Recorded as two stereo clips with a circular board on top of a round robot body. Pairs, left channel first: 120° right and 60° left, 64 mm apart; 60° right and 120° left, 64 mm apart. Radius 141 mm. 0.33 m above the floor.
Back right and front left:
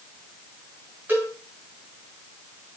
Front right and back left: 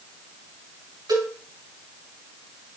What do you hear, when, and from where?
1.1 s a cowbell: 120° left, 6 m